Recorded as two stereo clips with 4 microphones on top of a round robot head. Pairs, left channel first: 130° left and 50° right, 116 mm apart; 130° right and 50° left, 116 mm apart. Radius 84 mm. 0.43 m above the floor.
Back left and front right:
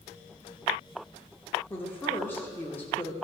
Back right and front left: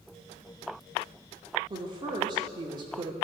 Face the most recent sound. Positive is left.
turn(degrees=70)